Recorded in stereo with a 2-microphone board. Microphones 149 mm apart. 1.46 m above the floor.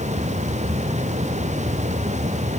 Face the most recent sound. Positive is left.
No sound to turn to.